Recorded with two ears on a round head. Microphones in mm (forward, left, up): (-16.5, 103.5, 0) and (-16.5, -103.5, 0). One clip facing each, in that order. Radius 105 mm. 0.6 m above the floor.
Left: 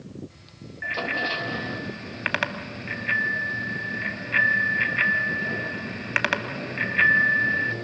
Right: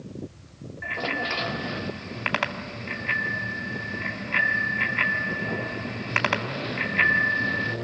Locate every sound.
0.8 s a bicycle bell: 15° left (ahead or behind), 2.5 m